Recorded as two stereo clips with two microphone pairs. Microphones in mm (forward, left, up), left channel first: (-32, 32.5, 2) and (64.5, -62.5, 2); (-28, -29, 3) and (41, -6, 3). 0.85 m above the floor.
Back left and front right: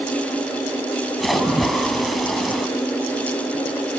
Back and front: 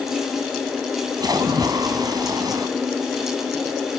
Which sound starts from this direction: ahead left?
A splash, at 1.2 s.